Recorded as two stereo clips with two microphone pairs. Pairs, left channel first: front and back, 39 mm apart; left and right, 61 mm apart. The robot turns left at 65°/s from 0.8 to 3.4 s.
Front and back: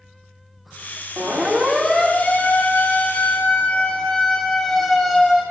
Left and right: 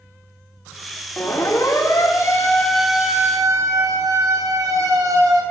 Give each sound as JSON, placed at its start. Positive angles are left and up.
{"t": 1.2, "sound": "a siren", "azimuth_deg": 140, "distance_m": 4.0}